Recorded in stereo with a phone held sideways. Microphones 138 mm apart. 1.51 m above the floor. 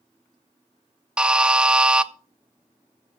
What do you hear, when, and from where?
1.2 s a buzzer: 5° right (ahead or behind), 0.5 m